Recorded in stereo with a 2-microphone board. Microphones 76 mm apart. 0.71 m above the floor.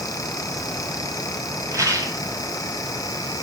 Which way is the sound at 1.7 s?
45° right (ahead or behind).